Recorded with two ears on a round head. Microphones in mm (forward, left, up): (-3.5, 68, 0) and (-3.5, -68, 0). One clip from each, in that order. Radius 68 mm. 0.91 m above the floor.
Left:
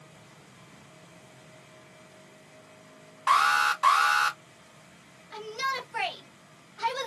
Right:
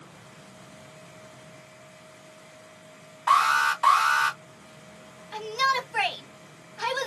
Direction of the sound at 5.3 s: Centre (ahead or behind).